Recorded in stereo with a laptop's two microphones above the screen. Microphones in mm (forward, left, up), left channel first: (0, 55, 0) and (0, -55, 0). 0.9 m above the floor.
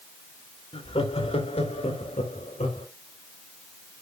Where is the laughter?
60° left (ahead or behind), 2.5 m; by 2.9 s 75° left (ahead or behind), 3.5 m.